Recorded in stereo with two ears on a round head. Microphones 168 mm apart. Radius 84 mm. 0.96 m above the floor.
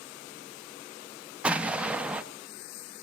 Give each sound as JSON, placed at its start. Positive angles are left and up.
{"t": 1.4, "sound": "an explosion", "side_deg": -5, "distance_m": 0.6}